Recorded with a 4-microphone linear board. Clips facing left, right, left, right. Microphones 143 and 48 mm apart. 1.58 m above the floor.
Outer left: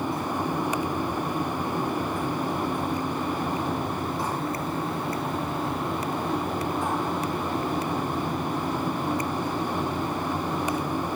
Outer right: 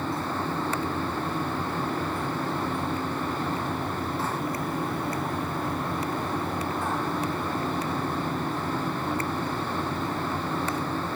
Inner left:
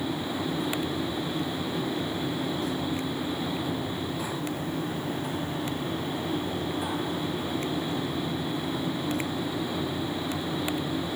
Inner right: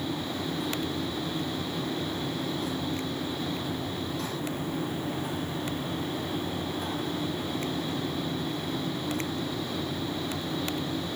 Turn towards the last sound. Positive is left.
No sound to turn to.